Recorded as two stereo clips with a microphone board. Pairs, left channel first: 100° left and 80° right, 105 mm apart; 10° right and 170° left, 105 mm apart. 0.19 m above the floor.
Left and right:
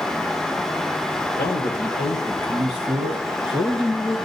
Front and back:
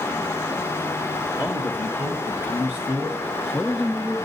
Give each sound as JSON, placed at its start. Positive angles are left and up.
{"t": 1.3, "sound": "a man speaking", "azimuth_deg": 105, "distance_m": 2.5}